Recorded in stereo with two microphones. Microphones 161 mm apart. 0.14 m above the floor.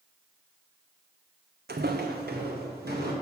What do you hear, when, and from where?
1.7 s footsteps: 85° right, 0.6 m; by 3.1 s 75° right (ahead or behind), 2.5 m